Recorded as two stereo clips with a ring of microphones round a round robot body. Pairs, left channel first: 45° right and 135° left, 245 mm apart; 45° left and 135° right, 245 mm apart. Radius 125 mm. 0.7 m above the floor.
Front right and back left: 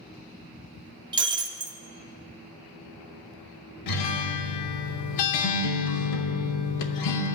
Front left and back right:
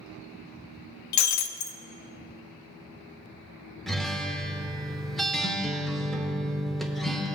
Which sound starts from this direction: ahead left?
Breaking glass, at 1.1 s.